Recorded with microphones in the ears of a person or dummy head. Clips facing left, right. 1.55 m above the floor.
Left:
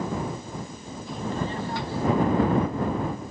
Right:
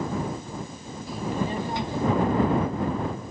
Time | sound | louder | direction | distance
1.1 | a child speaking | right 2 dB | 5° right (ahead or behind) | ?